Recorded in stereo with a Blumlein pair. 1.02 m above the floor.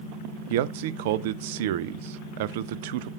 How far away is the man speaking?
About 0.6 m.